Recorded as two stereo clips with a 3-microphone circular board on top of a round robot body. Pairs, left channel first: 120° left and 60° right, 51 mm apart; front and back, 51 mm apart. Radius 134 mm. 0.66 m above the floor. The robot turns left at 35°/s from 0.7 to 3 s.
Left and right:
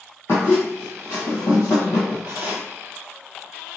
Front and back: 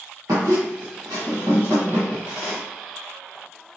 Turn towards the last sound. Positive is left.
turn(degrees=80)